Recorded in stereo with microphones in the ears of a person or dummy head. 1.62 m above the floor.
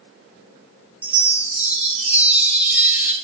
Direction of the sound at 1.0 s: 15° right (ahead or behind).